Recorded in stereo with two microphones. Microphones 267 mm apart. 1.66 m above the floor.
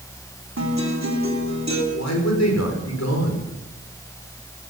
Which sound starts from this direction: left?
A man speaking, at 1.9 s.